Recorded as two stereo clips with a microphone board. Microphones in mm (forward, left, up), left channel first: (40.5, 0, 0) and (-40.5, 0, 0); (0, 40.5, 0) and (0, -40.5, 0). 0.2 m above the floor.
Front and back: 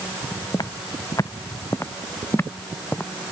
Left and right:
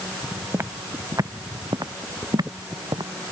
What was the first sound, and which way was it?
Footsteps, 30° right.